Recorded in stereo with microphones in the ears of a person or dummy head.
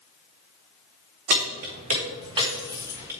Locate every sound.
1.3 s keys jangling: 60° right (ahead or behind), 1.1 m; by 3.1 s 15° right (ahead or behind), 1.6 m